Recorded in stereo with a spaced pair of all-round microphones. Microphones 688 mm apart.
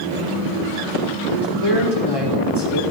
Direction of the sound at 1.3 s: 35° left (ahead or behind).